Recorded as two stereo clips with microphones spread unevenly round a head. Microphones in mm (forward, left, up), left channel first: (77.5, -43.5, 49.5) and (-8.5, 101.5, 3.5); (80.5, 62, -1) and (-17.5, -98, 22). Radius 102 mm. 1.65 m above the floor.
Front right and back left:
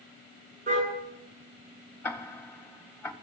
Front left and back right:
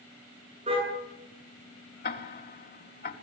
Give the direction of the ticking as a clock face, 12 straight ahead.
11 o'clock.